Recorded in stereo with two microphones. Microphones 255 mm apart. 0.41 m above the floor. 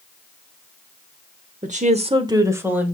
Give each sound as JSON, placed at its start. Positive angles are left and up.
{"t": 1.6, "sound": "a woman speaking", "side_deg": -30, "distance_m": 0.9}